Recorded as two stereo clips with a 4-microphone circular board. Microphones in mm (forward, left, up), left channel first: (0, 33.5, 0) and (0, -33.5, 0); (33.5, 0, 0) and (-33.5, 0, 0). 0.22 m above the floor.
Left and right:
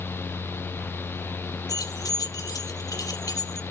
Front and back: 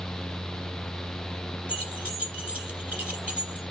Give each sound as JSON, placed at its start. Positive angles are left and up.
{"t": 1.7, "sound": "keys jangling", "azimuth_deg": 110, "distance_m": 3.5}